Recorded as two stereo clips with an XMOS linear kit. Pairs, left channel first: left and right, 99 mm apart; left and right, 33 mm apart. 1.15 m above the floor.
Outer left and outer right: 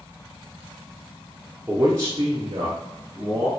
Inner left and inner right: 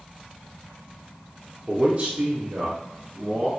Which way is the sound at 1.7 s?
20° right (ahead or behind).